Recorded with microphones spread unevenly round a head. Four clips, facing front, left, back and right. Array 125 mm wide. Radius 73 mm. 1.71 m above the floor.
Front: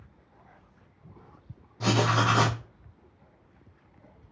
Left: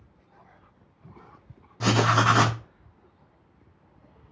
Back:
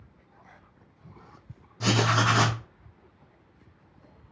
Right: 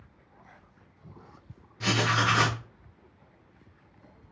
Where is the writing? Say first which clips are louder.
Left 5 dB, even; 60° left, 0.6 m.